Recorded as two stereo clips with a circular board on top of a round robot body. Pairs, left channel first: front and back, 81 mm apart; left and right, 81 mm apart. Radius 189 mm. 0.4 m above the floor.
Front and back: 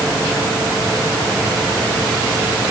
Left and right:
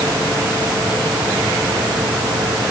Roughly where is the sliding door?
No sliding door in this recording.